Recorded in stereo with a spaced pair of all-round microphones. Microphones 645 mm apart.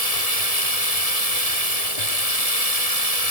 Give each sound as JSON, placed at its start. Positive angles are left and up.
{"t": 0.0, "sound": "running water", "side_deg": 65}